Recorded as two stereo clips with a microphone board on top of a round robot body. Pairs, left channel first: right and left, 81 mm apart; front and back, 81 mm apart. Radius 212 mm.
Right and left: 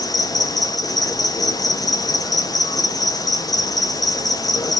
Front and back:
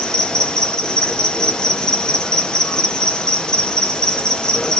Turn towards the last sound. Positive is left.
turn(degrees=-80)